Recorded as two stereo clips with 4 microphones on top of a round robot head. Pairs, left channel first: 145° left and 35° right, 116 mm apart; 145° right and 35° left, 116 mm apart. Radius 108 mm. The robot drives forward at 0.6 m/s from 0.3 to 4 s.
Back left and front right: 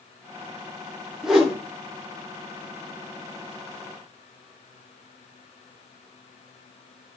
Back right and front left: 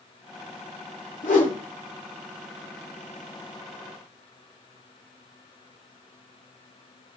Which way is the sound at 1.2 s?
120° right.